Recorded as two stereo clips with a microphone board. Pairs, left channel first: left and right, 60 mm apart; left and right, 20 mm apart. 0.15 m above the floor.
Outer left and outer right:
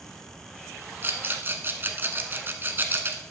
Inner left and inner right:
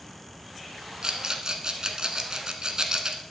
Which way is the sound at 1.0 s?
35° right (ahead or behind).